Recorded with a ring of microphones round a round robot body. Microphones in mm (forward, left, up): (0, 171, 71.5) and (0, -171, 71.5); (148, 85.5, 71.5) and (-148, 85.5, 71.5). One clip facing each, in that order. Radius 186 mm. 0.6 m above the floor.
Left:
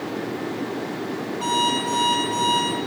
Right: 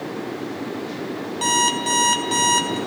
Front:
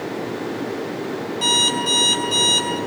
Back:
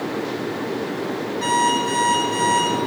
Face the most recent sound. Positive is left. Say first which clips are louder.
# even, back 1 dB
turn(degrees=-60)